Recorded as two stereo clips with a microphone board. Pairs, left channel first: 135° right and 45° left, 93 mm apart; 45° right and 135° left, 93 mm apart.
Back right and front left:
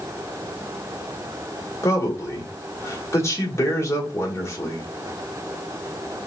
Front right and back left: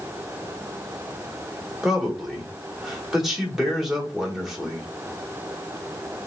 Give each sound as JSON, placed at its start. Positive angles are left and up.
{"t": 1.8, "sound": "a man speaking", "azimuth_deg": -145, "distance_m": 1.0}